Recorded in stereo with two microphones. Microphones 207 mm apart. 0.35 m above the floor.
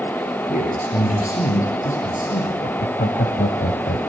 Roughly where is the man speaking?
Left.